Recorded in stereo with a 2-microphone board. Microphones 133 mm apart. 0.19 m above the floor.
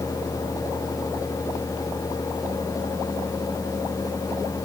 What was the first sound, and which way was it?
Only background noise.